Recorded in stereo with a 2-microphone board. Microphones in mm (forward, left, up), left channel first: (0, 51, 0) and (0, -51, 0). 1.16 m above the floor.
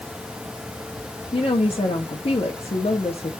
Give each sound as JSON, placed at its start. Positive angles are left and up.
{"t": 1.3, "sound": "a woman speaking", "side_deg": 75, "distance_m": 1.6}